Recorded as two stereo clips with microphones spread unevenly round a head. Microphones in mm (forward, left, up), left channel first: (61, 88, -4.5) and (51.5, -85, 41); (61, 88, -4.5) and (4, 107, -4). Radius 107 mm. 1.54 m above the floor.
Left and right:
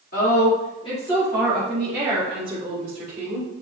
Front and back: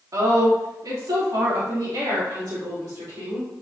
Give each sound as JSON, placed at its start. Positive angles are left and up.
{"t": 0.1, "sound": "a woman speaking", "azimuth_deg": 140, "distance_m": 2.5}